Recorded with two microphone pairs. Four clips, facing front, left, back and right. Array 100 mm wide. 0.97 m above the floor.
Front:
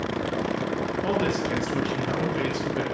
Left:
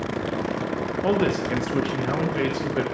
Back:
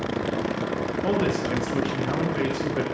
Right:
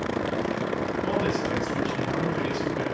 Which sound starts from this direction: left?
A man speaking, at 1.0 s.